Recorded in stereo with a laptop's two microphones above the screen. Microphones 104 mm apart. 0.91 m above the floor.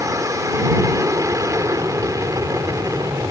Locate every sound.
0.0 s an aircraft: 30° right (ahead or behind)